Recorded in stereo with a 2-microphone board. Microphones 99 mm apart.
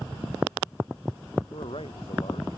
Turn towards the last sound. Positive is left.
turn(degrees=65)  # may be behind; listen again after turning